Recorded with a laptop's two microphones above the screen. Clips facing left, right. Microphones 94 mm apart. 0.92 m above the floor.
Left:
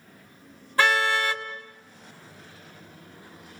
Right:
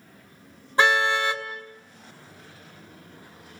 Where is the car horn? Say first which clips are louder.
Right 1 dB; 20° right (ahead or behind), 2.5 m.